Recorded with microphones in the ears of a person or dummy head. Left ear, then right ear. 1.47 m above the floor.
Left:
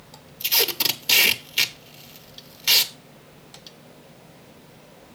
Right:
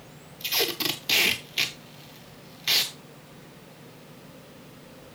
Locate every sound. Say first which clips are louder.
0.4 s tape being pulled: left 4 dB; 15° left (ahead or behind), 0.8 m